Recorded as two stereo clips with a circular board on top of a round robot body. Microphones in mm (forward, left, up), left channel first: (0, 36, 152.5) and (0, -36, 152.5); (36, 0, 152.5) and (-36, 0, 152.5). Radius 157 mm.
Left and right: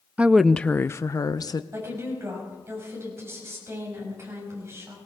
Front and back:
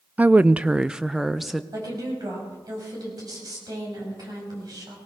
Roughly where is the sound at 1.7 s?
Behind right.